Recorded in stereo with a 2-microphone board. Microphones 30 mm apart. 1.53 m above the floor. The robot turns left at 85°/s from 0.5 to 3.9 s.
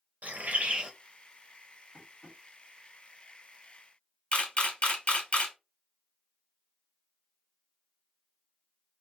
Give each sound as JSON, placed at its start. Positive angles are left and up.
{"t": 0.2, "sound": "a bird", "azimuth_deg": -120, "distance_m": 0.6}
{"t": 1.9, "sound": "tapping", "side_deg": -15, "distance_m": 1.4}
{"t": 4.3, "sound": "a camera shutter", "side_deg": 50, "distance_m": 1.2}